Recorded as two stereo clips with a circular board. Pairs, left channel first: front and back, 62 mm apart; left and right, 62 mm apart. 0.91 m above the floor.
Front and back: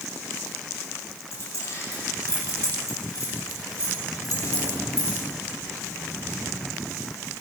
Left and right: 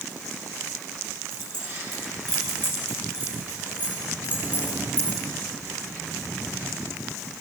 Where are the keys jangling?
45° right, 5 m; by 5.2 s 30° right, 6.5 m.